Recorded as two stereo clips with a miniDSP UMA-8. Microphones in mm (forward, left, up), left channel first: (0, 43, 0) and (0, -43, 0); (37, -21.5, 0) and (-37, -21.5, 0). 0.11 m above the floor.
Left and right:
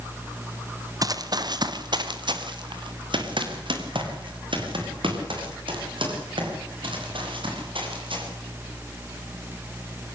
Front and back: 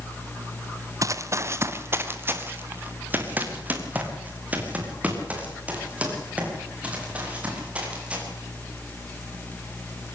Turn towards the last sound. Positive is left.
turn(degrees=-105)